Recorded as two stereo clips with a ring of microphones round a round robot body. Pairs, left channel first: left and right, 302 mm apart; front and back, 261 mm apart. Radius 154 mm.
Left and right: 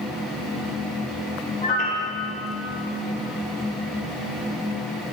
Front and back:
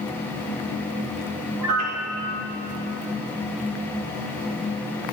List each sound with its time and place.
1.6 s a piano: 155° left, 1.4 m